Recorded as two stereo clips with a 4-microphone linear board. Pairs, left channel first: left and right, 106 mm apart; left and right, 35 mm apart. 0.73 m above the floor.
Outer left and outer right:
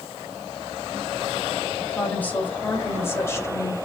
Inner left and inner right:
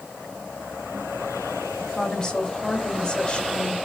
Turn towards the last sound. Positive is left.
turn(degrees=30)  # may be behind; listen again after turning